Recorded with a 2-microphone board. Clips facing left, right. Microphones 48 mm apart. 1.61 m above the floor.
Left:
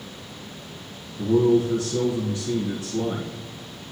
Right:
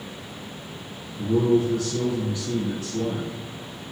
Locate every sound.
1.2 s a man speaking: 55° left (ahead or behind), 1.8 m